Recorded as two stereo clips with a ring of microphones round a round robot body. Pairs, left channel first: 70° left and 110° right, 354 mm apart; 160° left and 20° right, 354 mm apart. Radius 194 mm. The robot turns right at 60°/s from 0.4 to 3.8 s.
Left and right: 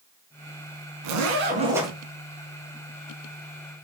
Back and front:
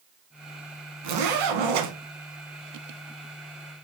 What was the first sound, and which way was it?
A zipper, 70° right.